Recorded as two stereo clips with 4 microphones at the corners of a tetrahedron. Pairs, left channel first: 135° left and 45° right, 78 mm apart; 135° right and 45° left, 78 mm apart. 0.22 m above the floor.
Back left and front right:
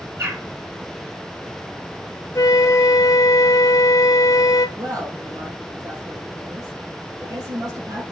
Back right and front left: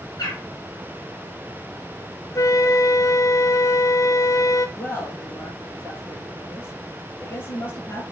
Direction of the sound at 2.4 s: Straight behind.